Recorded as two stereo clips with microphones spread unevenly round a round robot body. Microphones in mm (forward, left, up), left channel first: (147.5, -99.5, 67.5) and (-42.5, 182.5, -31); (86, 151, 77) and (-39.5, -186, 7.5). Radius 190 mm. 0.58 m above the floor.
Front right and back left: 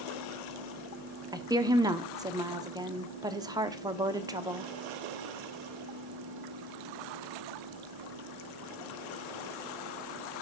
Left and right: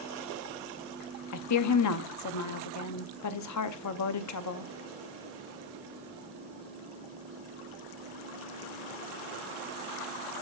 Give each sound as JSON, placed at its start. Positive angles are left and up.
{"t": 1.3, "sound": "a woman speaking", "azimuth_deg": 85, "distance_m": 0.8}